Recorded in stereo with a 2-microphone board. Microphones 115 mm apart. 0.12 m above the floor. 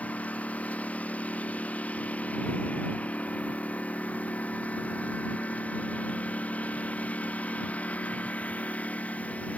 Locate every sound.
0.0 s a lawn mower: 10° left (ahead or behind)